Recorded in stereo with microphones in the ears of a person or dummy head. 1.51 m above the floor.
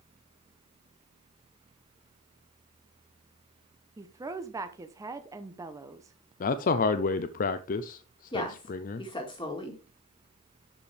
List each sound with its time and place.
4.0 s a woman speaking: 15° right (ahead or behind), 0.9 m
6.4 s a man speaking: 40° left (ahead or behind), 0.5 m
8.3 s a woman speaking: 20° left (ahead or behind), 2 m